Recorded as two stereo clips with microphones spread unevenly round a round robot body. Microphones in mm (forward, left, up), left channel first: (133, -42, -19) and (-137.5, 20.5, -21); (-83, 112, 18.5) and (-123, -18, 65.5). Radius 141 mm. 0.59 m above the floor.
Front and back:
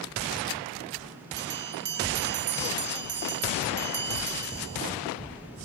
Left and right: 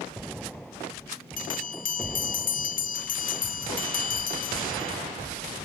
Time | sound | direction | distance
1.4 | a bell | 110° left | 0.8 m